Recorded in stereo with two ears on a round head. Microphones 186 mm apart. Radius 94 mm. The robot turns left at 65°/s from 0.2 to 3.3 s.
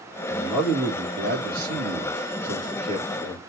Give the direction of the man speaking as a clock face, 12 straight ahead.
11 o'clock.